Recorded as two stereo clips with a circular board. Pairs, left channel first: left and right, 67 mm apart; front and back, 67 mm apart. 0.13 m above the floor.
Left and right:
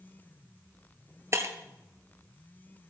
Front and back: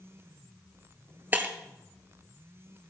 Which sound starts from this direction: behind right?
Breaking glass, at 1.3 s.